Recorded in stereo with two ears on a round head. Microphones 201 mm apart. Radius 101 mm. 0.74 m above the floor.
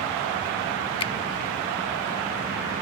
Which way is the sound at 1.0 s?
25° left (ahead or behind).